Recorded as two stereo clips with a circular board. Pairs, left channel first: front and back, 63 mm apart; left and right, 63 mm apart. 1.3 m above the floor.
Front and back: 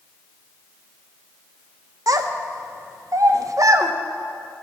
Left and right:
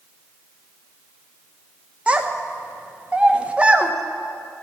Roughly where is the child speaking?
Behind.